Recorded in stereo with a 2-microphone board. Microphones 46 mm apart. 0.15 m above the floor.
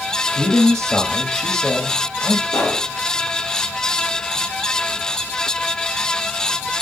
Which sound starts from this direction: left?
A pop, at 2.5 s.